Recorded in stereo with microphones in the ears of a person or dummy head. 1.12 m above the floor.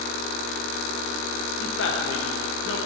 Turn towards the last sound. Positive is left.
turn(degrees=60)  # may be behind; listen again after turning